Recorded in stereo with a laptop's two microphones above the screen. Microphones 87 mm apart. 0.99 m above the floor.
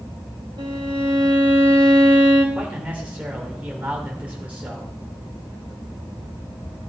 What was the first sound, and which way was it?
A violin, 65° right (ahead or behind).